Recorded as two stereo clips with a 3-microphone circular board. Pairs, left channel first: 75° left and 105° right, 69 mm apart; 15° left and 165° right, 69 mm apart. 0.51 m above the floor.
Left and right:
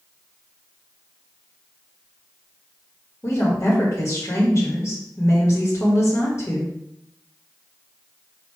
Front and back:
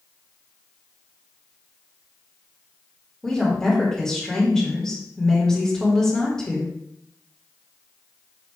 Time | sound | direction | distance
3.2 | a woman speaking | 95° left | 1.8 m